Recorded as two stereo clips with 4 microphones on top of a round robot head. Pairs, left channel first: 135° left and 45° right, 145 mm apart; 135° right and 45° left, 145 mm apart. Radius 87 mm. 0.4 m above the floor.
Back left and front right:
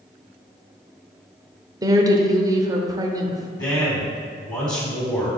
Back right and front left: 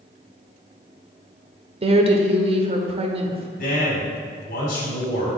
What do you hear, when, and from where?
1.8 s a woman speaking: 15° left, 1.1 m
3.6 s a man speaking: 160° right, 3 m